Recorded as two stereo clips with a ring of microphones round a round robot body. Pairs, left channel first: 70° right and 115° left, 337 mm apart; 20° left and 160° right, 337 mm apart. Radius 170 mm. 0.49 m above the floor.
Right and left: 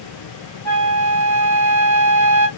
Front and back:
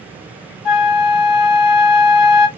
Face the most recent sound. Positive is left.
turn(degrees=15)